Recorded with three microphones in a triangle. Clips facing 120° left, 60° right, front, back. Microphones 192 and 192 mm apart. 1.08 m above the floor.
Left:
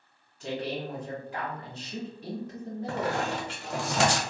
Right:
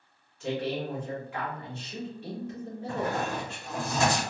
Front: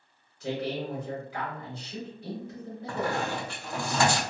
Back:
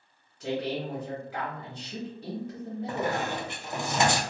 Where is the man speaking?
170° left, 1.9 m.